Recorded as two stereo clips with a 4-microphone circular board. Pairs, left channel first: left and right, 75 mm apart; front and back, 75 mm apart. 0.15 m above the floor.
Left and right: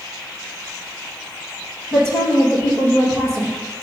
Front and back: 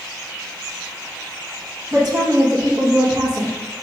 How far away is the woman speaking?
About 1.9 m.